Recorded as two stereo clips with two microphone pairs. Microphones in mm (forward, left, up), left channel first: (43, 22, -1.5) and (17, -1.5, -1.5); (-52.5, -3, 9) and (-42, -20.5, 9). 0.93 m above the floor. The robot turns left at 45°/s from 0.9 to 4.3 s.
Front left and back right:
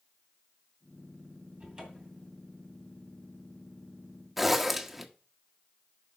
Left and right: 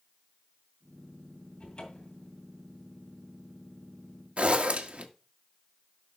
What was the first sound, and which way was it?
A cupboard door, 165° left.